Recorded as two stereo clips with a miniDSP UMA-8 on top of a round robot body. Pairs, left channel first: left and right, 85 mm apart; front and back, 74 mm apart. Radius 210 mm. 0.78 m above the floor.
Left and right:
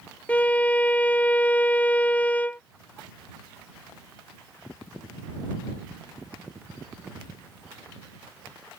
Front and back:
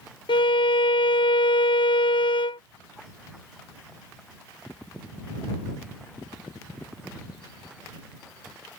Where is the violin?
15° left.